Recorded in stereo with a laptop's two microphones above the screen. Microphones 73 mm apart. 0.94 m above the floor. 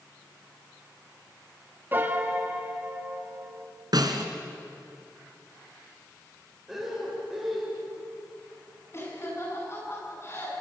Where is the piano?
30° right (ahead or behind), 2 m.